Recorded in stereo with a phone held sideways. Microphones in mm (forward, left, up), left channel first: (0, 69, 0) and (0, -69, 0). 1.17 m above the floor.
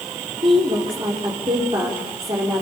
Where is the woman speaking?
40° right (ahead or behind), 4 m.